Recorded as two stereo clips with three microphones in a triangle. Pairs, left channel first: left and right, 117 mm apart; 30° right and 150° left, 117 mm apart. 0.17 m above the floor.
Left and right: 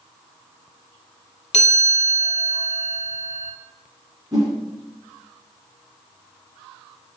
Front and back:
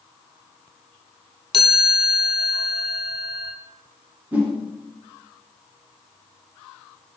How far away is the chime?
About 0.9 m.